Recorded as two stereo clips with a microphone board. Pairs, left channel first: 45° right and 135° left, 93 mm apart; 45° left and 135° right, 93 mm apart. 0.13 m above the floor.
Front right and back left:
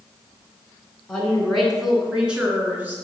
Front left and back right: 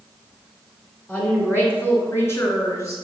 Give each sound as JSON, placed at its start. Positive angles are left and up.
{"t": 1.1, "sound": "a woman speaking", "azimuth_deg": 10, "distance_m": 1.5}